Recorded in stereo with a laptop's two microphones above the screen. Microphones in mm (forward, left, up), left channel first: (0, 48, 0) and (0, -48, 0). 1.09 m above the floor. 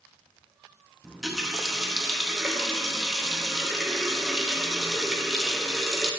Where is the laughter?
I don't hear laughter.